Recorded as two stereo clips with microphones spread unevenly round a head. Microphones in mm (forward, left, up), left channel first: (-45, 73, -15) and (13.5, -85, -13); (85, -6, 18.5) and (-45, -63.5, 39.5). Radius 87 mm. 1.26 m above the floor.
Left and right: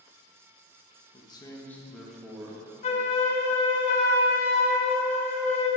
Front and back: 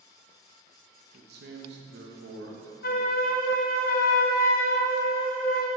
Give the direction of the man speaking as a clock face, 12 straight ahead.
6 o'clock.